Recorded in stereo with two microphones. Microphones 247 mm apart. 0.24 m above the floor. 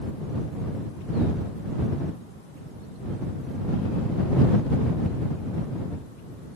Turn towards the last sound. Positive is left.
No sound to turn to.